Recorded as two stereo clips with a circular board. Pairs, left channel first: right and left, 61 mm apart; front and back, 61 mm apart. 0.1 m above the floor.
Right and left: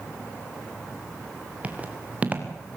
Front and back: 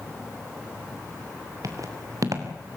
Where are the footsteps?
155° left, 3.5 m.